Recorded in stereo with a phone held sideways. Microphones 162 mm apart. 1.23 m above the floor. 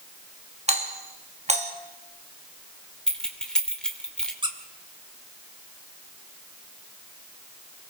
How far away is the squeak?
About 2.0 m.